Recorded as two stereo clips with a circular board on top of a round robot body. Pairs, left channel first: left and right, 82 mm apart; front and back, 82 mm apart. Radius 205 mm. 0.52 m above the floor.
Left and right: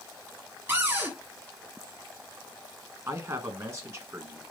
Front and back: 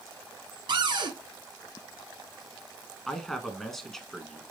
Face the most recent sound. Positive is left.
turn(degrees=-80)